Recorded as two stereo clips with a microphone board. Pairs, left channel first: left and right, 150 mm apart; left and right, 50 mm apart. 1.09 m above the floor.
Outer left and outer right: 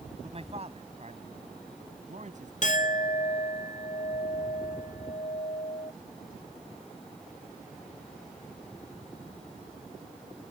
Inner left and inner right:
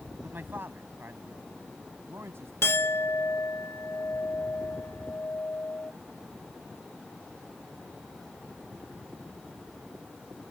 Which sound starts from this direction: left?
A clink, at 2.6 s.